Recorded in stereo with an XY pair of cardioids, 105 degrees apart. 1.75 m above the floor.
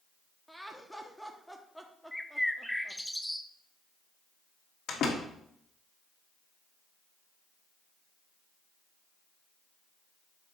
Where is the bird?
5° left, 0.8 m.